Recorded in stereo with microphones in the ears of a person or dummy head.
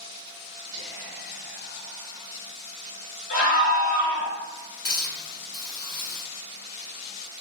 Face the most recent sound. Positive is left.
turn(degrees=45)  # may be behind; listen again after turning